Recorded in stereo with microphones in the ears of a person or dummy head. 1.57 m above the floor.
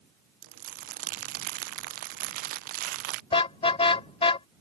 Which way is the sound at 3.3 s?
30° left (ahead or behind).